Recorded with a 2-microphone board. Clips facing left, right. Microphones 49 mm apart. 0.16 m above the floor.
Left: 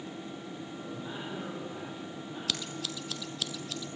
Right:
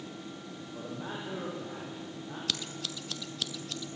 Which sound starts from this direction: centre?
Scissors, at 2.5 s.